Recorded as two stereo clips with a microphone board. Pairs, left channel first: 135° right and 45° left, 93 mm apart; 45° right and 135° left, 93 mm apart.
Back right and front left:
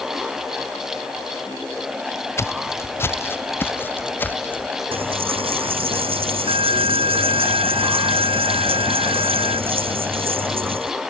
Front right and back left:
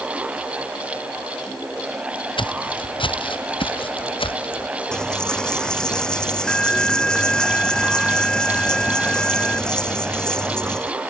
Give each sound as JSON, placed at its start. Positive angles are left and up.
{"t": 2.4, "sound": "footsteps", "azimuth_deg": -75}
{"t": 4.9, "sound": "a dropped coin", "azimuth_deg": 35}